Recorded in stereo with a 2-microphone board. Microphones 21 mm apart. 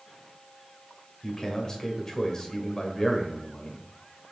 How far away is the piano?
I don't hear a piano.